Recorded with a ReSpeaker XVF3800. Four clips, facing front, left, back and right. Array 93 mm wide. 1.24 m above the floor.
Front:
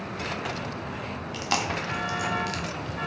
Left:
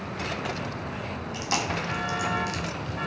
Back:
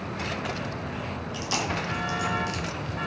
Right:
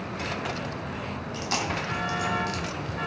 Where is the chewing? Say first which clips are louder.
Left 1 dB, front 2 dB; 5° left, 1.1 m.